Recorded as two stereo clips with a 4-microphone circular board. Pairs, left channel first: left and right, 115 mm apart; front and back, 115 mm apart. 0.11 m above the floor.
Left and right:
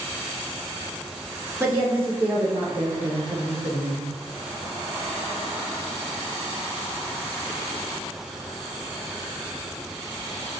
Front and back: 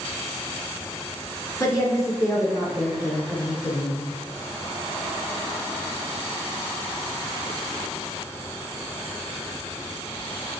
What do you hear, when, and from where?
1.6 s a woman speaking: 35° right, 1.2 m